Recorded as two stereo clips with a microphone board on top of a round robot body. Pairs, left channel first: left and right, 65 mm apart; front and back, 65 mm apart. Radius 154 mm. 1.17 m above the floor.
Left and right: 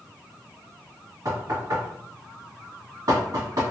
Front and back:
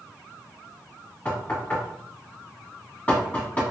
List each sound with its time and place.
1.2 s knocking: 65° right, 2 m